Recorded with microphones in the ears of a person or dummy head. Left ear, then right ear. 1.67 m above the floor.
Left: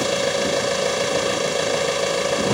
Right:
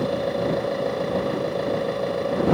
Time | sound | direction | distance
0.0 | an engine running | 80° left | ?